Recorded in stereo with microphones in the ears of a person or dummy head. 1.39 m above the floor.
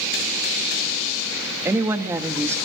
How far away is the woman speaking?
About 2.0 m.